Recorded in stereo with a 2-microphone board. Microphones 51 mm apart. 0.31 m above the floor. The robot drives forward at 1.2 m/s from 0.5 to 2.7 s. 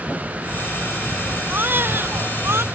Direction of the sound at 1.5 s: 45° right (ahead or behind).